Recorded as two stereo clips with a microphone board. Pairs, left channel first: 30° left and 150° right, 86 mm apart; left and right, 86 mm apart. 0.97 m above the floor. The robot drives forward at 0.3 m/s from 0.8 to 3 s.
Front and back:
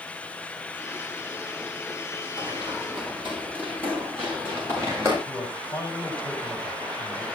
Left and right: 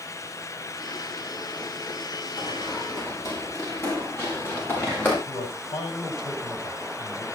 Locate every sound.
2.4 s running footsteps: 130° left, 7.5 m; by 5.2 s 155° left, 8 m
5.3 s a man speaking: 90° left, 5 m